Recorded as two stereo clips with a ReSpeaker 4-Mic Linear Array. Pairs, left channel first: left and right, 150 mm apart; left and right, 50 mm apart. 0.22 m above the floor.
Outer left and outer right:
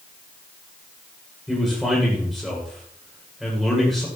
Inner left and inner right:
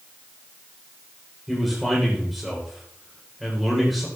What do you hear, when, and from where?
1.5 s a man speaking: centre (ahead or behind), 9 m